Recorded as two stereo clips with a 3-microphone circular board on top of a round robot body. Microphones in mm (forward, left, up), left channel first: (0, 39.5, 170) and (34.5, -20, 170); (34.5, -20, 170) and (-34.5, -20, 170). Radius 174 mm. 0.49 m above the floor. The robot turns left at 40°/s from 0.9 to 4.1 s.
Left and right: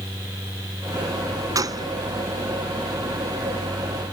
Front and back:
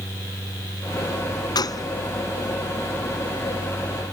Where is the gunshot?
25° right; by 1.9 s 35° right.